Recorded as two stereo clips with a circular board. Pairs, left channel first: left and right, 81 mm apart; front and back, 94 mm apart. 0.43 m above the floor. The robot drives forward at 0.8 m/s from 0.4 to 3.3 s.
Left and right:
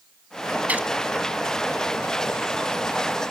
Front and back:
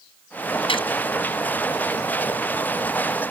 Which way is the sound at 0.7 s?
20° right.